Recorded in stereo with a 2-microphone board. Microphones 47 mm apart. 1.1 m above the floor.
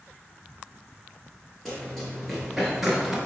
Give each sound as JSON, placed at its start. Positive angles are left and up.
{"t": 1.6, "sound": "running footsteps", "side_deg": 5, "distance_m": 1.4}